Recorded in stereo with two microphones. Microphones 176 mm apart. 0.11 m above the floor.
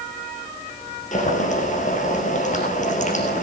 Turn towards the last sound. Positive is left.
turn(degrees=45)  # may be behind; listen again after turning